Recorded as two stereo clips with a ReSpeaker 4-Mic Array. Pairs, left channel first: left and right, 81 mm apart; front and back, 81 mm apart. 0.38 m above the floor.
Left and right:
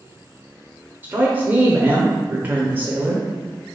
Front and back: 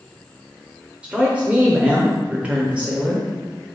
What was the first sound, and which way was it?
A woman speaking, 125° right.